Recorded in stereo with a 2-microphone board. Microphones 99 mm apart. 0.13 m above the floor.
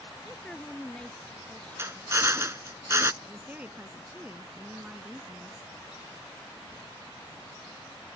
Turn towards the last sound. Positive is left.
turn(degrees=-15)  # may be behind; listen again after turning